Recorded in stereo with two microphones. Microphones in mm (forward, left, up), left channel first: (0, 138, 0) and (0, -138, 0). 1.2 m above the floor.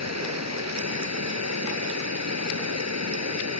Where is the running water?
80° right.